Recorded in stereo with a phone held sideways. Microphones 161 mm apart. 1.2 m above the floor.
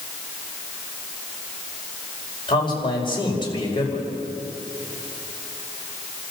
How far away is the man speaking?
About 5 m.